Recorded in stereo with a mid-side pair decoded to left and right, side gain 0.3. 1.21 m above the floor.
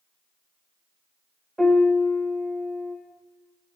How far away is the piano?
About 3.5 m.